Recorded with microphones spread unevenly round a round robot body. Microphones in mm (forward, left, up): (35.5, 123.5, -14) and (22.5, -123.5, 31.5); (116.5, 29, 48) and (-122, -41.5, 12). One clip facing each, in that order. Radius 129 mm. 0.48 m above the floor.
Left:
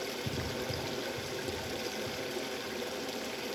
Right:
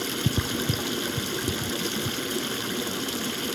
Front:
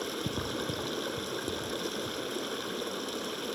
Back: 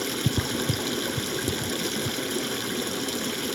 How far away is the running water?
About 1.1 m.